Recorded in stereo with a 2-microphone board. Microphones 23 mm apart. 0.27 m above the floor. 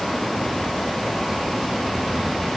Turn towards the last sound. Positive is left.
No sound to turn to.